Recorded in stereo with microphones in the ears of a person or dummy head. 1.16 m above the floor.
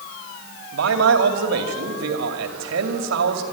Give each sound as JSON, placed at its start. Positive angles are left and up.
{"t": 0.7, "sound": "a man speaking", "side_deg": -75, "distance_m": 2.0}